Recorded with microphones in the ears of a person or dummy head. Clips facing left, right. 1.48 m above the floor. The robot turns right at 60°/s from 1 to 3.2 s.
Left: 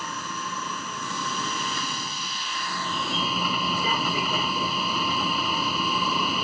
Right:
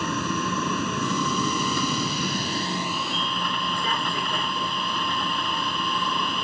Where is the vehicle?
125° right; by 6.4 s 10° left.